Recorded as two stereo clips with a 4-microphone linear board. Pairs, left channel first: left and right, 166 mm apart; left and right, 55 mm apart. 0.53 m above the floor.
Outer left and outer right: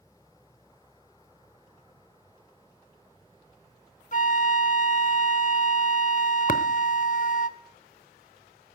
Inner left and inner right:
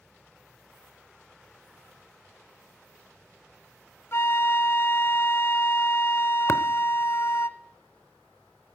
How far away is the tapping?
About 0.7 m.